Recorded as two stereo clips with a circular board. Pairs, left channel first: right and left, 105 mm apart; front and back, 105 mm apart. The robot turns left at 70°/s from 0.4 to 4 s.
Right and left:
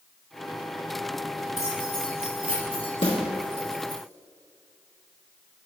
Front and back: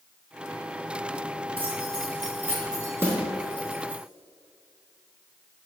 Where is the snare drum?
110° right, 1.7 m; by 3.2 s 120° right, 1.7 m.